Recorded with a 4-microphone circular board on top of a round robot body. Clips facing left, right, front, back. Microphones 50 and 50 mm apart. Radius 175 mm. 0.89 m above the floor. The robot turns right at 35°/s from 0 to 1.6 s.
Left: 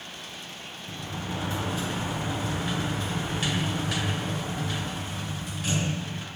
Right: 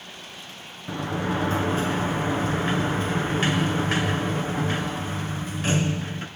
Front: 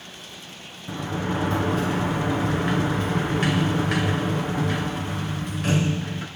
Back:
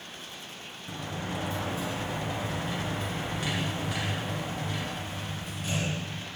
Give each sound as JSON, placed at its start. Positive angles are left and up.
{"t": 0.9, "sound": "a sliding door", "azimuth_deg": -65, "distance_m": 2.0}